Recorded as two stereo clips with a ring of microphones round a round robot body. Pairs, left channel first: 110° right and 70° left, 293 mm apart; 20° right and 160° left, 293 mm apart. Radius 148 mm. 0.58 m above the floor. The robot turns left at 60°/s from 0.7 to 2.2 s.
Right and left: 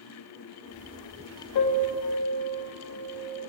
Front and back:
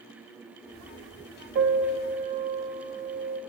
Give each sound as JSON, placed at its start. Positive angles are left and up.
{"t": 1.6, "sound": "a piano", "azimuth_deg": -140, "distance_m": 0.8}